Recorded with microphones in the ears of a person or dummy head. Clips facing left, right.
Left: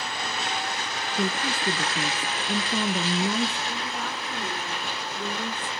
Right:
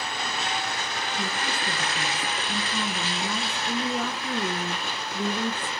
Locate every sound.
1.2 s a woman speaking: 20° left (ahead or behind), 0.9 m
3.7 s a woman speaking: 60° right (ahead or behind), 1.2 m